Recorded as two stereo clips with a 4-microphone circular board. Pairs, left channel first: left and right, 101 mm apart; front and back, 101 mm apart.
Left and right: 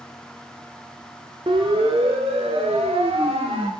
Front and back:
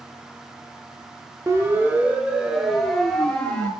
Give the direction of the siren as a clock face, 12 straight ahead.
4 o'clock.